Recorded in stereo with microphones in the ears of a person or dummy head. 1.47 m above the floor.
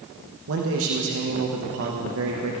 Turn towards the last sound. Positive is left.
turn(degrees=-80)